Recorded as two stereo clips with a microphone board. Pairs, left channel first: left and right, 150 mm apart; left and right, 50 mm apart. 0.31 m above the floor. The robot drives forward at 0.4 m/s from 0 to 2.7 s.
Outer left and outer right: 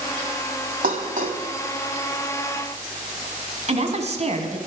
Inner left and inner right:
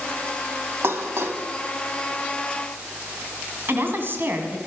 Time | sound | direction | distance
0.8 | dishes clattering | 65° right (ahead or behind) | 1.2 m
3.7 | a woman speaking | 50° right (ahead or behind) | 1.9 m